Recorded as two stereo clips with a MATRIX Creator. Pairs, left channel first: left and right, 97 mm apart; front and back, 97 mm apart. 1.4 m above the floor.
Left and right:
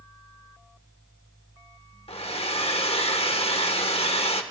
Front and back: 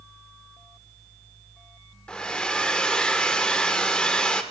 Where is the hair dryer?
80° left, 1.2 m.